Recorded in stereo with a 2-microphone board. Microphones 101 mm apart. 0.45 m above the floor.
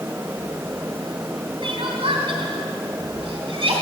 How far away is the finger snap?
No finger snap in this recording.